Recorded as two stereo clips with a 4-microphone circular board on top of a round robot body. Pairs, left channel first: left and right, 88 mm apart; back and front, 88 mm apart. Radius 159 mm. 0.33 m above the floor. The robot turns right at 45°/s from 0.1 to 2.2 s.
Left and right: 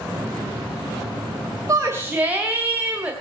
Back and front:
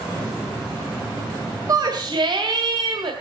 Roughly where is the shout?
Ahead right.